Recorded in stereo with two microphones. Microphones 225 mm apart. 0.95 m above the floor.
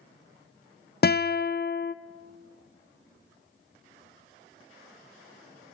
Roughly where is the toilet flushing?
No toilet flushing in this recording.